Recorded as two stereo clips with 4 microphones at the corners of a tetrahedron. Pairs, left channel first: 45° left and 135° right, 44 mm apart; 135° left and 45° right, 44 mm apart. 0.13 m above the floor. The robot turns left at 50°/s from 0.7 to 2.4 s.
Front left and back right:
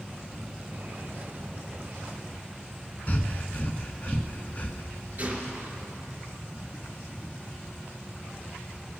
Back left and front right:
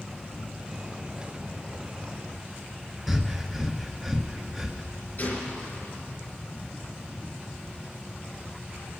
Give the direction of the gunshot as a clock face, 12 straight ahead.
6 o'clock.